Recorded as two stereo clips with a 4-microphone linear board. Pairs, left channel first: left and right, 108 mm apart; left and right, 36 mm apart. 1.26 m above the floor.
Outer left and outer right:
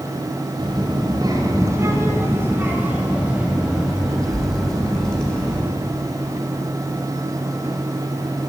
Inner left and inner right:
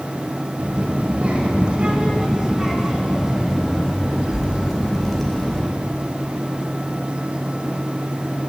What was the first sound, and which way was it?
A child speaking, 45° right (ahead or behind).